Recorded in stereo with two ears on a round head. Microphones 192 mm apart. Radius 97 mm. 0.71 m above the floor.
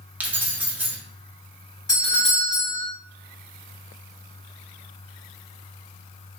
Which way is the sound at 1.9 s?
20° left (ahead or behind).